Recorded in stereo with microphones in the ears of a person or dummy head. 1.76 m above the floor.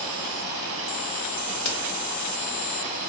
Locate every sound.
1.6 s a crack: 65° left (ahead or behind), 0.7 m